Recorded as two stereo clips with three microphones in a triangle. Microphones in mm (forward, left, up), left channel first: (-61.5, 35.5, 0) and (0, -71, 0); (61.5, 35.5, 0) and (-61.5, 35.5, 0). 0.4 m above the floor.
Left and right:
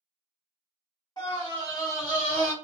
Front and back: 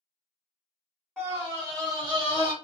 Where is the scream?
95° left, 1.5 m; by 2.5 s 170° right, 1.4 m.